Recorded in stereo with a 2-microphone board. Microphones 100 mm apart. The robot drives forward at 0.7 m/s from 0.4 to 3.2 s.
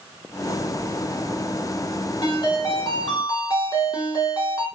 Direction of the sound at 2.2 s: 50° left (ahead or behind).